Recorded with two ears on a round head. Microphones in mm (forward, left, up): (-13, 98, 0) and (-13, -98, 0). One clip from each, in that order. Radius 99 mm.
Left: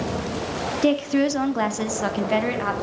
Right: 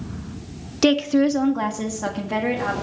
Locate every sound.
0.8 s a woman speaking: 25° right (ahead or behind), 0.5 m; by 2.7 s 75° left (ahead or behind), 2 m